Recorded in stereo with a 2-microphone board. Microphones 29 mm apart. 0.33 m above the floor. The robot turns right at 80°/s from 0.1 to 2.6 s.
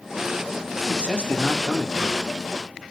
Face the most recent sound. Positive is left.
turn(degrees=-155)